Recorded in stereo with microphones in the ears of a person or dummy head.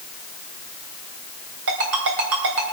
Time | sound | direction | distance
1.7 | a ringtone | 65° right (ahead or behind) | 3.5 m